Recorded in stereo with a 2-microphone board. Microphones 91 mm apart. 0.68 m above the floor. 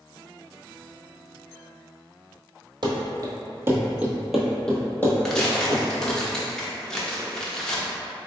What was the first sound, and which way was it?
Running footsteps, 50° right (ahead or behind).